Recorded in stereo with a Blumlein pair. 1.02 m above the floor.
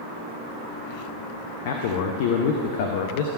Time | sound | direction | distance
1.6 | a man speaking | 50° left | 0.8 m